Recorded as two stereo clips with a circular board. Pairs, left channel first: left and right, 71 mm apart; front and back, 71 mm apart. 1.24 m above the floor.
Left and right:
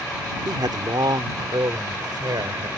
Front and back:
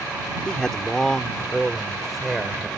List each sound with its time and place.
0.5 s a man speaking: 80° right; by 2.7 s 95° right